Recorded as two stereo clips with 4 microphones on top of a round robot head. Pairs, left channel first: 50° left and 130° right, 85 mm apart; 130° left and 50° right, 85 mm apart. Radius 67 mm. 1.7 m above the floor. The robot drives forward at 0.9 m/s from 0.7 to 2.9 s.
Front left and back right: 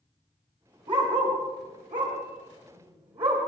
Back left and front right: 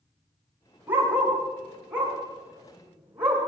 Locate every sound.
0.9 s a dog barking: 115° right, 7.5 m; by 3.4 s 125° right, 8 m